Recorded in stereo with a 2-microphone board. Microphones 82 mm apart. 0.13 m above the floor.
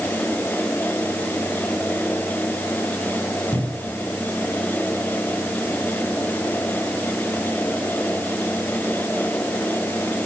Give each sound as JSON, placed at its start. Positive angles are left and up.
{"t": 3.5, "sound": "a cupboard door", "side_deg": -25, "distance_m": 5.5}